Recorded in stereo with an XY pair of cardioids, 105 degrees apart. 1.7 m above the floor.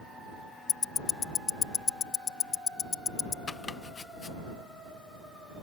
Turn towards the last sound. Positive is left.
turn(degrees=35)